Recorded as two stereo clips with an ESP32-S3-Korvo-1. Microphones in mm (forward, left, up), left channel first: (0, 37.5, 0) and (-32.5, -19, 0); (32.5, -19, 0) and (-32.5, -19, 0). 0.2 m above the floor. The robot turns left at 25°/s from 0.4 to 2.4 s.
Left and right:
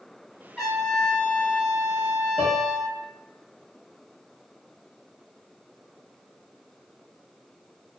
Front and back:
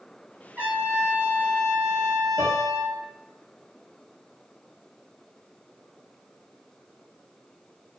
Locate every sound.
0.6 s a trumpet: 140° left, 1.4 m; by 3.0 s 95° left, 1.4 m
2.4 s a piano: 120° left, 1.0 m